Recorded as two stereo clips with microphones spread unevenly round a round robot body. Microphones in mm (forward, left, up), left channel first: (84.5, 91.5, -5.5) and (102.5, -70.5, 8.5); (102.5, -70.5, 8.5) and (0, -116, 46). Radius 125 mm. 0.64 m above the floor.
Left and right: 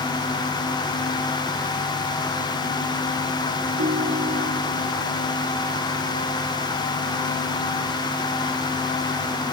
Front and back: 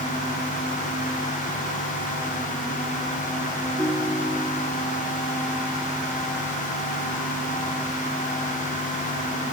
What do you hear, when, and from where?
3.8 s a ringtone: 60° right, 4 m